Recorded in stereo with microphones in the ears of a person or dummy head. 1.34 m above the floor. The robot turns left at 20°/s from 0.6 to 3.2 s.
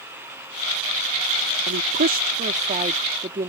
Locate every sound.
1.7 s a woman speaking: 130° right; by 3.5 s 160° right